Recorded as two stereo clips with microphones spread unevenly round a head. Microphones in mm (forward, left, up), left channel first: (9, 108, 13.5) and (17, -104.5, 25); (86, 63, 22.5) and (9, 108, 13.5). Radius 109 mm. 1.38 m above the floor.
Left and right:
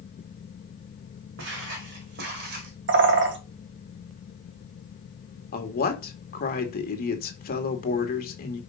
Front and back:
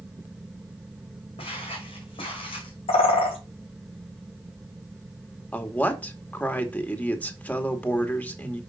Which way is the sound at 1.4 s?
60° right.